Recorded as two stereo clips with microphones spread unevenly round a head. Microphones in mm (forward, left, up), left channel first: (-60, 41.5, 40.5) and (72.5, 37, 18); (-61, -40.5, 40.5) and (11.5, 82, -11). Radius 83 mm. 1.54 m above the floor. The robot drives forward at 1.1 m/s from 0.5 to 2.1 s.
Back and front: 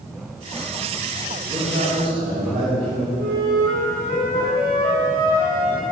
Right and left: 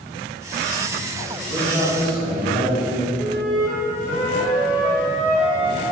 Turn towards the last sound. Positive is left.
turn(degrees=-35)